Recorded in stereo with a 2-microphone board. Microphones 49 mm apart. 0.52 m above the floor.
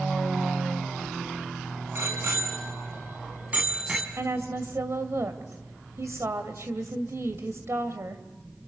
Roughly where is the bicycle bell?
Right.